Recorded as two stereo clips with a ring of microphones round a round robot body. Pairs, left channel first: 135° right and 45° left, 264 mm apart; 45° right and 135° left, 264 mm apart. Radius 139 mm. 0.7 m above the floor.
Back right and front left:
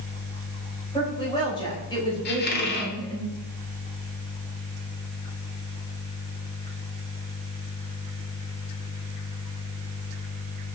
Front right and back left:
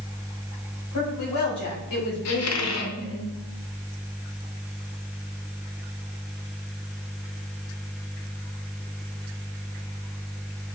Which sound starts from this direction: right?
A squeak, at 2.2 s.